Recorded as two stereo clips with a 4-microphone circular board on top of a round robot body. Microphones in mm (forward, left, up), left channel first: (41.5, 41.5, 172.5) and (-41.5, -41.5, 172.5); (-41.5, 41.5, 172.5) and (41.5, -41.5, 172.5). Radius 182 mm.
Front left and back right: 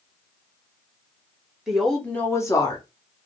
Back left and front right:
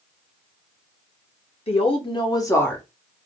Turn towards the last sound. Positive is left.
turn(degrees=55)